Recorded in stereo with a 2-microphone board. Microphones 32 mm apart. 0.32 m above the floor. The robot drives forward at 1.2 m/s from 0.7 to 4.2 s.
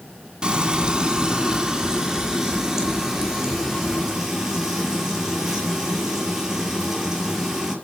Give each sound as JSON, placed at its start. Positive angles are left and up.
{"t": 0.4, "sound": "frying", "side_deg": -20, "distance_m": 2.5}